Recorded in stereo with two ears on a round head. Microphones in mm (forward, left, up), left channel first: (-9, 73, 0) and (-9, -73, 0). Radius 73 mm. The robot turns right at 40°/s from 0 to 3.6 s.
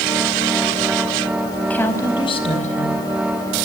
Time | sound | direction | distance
1.6 | a woman speaking | 5° left | 4.5 m